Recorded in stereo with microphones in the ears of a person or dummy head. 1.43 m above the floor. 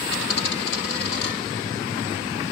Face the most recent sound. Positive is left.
turn(degrees=60)  # may be behind; listen again after turning